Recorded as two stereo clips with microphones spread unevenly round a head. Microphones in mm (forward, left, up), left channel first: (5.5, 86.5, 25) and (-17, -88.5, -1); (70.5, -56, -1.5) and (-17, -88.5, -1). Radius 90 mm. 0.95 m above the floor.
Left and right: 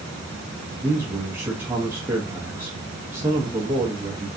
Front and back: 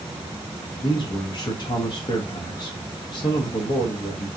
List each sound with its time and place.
0.8 s a man speaking: 20° right, 1.0 m